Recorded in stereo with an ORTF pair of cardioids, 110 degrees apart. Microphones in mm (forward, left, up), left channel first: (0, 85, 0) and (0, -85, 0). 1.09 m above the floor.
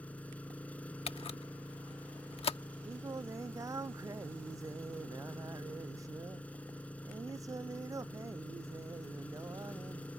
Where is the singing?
20° right.